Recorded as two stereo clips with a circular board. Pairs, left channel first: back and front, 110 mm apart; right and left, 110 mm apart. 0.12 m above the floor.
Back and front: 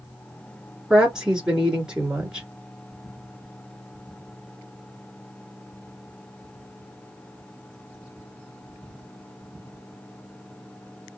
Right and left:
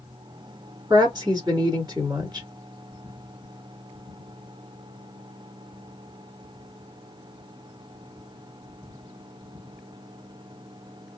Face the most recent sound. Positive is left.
turn(degrees=80)